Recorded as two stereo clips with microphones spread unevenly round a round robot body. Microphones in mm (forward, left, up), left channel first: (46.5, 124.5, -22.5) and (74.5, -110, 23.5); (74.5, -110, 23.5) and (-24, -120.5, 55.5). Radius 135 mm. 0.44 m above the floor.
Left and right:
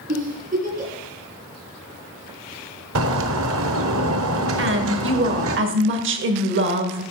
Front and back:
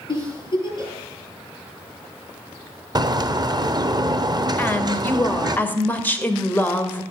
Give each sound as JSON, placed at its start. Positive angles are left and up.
{"t": 0.1, "sound": "a giggle", "azimuth_deg": -30, "distance_m": 8.5}
{"t": 3.0, "sound": "a bird", "azimuth_deg": -120, "distance_m": 1.1}
{"t": 4.6, "sound": "a woman speaking", "azimuth_deg": -50, "distance_m": 1.9}